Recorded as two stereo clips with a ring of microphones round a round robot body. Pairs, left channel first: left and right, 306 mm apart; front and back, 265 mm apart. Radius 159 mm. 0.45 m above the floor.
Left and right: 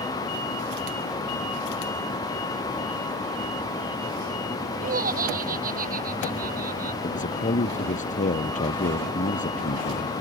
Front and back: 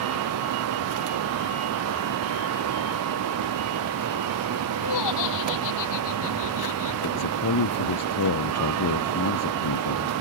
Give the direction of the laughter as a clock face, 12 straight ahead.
1 o'clock.